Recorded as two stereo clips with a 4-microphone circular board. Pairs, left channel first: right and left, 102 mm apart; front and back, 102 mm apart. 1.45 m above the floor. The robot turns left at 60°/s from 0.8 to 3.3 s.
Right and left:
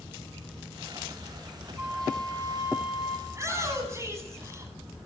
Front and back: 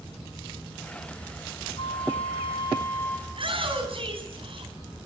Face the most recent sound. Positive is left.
turn(degrees=150)